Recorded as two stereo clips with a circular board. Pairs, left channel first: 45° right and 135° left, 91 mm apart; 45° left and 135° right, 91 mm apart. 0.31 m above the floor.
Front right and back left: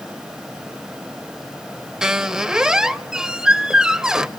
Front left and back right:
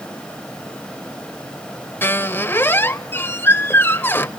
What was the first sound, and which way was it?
A squeak, 65° left.